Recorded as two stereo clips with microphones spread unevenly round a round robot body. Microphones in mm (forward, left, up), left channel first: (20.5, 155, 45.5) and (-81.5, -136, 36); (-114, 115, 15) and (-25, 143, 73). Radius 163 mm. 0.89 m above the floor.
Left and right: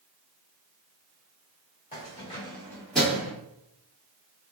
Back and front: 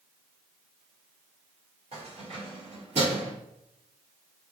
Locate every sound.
1.9 s keys jangling: 5° left, 1.5 m; by 3.3 s 25° right, 1.1 m